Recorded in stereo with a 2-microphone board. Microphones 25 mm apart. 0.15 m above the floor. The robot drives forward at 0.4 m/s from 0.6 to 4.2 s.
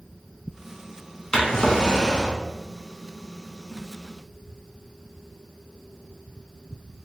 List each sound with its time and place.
1.3 s a drawer: 35° left (ahead or behind), 0.7 m; by 2.4 s 30° left (ahead or behind), 0.9 m